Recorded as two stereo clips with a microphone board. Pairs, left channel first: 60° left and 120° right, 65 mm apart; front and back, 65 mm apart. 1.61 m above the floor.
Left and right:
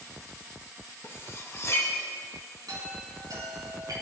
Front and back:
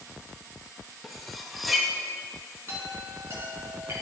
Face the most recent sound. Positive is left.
turn(degrees=-130)